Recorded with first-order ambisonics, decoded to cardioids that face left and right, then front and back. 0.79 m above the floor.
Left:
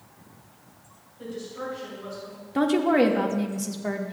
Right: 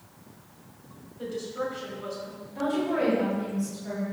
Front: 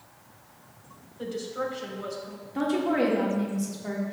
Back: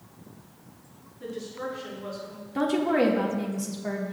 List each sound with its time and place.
1.2 s a woman speaking: 15° right, 3.5 m
2.5 s a woman speaking: 100° left, 1.5 m